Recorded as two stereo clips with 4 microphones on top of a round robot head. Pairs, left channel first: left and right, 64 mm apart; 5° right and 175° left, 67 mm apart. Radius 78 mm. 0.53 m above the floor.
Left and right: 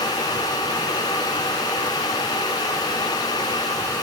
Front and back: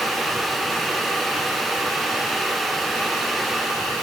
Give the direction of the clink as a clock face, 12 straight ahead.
I don't hear a clink.